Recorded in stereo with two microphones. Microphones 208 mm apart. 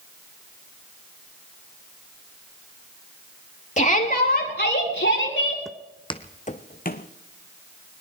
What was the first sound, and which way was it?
A shout, 35° left (ahead or behind).